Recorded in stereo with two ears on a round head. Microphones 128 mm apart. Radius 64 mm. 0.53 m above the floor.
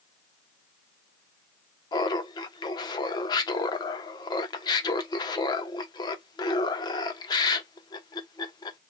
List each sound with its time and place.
1.9 s laughter: 30° left (ahead or behind), 0.7 m